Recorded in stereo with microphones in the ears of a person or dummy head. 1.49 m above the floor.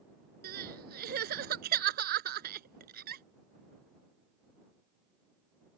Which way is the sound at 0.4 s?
60° right (ahead or behind).